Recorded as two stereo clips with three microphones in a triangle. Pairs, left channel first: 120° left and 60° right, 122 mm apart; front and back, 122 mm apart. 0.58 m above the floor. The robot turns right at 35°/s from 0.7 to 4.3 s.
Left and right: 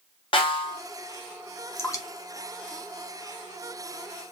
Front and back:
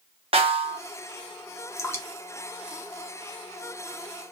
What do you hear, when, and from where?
0.3 s a snare drum: 155° left, 0.5 m; by 0.8 s 160° left, 0.5 m
1.8 s dripping: 55° left, 0.6 m; by 3.5 s 120° left, 0.6 m